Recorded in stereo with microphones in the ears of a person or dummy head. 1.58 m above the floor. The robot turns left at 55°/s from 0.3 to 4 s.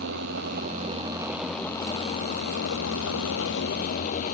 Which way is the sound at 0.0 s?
115° right.